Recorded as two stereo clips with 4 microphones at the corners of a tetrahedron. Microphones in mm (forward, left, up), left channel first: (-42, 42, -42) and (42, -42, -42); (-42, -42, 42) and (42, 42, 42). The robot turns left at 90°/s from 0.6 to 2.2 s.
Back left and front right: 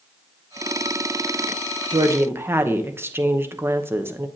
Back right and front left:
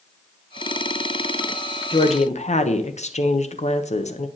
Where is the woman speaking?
90° right, 0.8 m; by 4.3 s 115° right, 0.8 m.